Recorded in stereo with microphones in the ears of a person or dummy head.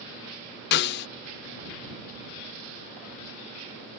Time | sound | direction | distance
0.7 | a snare drum | 60° left (ahead or behind) | ?